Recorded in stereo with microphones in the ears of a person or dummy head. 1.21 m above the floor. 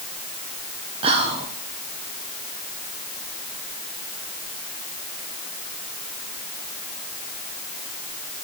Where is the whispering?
35° right (ahead or behind), 0.6 m.